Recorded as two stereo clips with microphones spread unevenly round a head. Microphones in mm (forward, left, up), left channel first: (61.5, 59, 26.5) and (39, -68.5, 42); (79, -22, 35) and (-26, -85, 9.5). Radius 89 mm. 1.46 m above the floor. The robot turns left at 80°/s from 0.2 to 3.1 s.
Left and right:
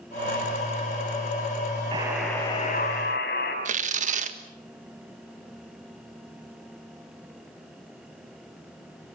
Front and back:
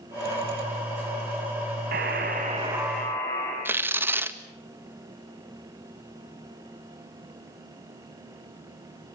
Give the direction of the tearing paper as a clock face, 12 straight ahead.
2 o'clock.